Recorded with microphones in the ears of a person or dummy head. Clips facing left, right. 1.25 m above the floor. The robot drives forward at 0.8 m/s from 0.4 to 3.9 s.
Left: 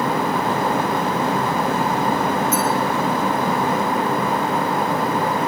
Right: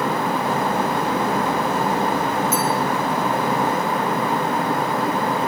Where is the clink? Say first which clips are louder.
Left 1 dB; 10° right (ahead or behind), 4 m.